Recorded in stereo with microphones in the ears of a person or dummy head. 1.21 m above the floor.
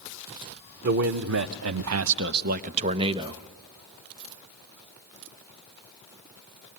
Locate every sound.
0.8 s a man speaking: 50° right (ahead or behind), 0.9 m; by 3.4 s 20° right (ahead or behind), 1.0 m